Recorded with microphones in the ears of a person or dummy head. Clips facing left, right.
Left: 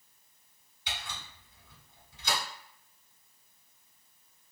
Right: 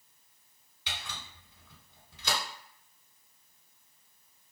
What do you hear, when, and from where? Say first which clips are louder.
0.9 s a camera shutter: left 1 dB; 60° right (ahead or behind), 1.4 m